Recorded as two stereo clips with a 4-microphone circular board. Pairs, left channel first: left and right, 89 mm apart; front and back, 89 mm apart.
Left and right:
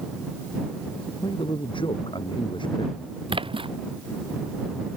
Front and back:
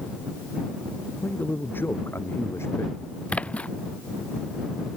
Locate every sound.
1.2 s a man speaking: 70° left; by 3.0 s 60° left
3.3 s a splash: 75° right